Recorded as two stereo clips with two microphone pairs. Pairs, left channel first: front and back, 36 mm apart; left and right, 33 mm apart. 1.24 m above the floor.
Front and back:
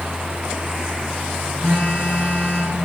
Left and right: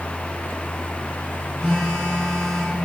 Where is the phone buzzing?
30° left, 3 m.